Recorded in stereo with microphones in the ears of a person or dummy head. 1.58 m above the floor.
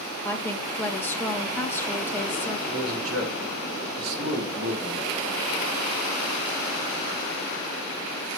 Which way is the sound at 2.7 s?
80° right.